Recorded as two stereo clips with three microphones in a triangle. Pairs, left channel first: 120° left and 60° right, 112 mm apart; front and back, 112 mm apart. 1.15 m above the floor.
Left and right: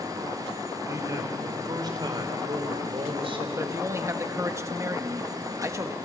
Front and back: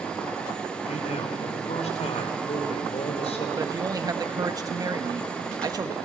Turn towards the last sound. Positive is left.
turn(degrees=-125)